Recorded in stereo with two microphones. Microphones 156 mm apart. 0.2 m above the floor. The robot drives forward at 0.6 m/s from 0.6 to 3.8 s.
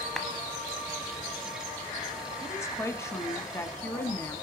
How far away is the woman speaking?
About 1.0 m.